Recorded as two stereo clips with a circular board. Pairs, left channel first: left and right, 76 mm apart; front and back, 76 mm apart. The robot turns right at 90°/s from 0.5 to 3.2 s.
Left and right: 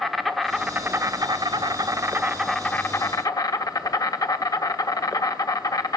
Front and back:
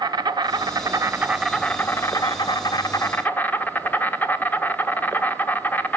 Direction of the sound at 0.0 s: Straight behind.